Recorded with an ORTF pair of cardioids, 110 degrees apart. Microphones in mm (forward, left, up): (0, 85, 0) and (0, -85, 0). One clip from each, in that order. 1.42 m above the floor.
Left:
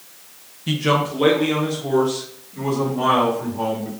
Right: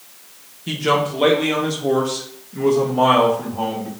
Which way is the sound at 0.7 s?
10° left.